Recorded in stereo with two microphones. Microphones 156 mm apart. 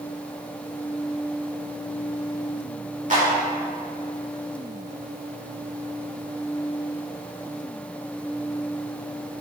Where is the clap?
55° right (ahead or behind), 2.5 m.